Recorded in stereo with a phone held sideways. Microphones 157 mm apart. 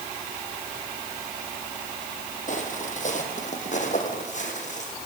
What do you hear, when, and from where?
2.5 s footsteps: 50° left (ahead or behind), 3.5 m